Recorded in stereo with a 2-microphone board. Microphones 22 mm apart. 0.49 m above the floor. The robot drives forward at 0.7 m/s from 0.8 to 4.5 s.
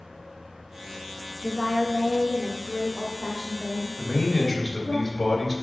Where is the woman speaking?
15° right (ahead or behind), 0.7 m; by 5.0 s 5° right (ahead or behind), 2.0 m.